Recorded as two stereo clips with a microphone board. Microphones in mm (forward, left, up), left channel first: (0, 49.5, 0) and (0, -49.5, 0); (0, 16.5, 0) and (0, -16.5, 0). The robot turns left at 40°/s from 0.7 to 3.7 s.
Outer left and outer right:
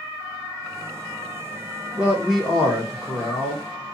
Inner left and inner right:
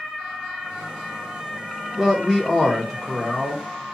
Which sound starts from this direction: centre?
A man speaking, at 1.9 s.